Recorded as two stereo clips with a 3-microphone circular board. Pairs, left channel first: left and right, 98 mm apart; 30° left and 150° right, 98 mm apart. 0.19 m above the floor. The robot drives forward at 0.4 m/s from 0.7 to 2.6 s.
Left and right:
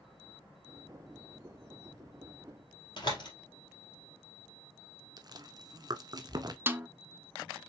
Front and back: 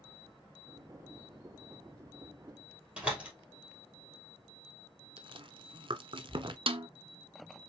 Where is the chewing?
130° right, 0.6 m.